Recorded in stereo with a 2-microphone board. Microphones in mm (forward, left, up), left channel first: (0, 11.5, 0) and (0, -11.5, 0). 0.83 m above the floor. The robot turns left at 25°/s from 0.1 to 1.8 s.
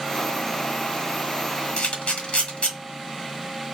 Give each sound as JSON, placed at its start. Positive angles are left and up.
{"t": 1.8, "sound": "a camera shutter", "side_deg": 60, "distance_m": 1.2}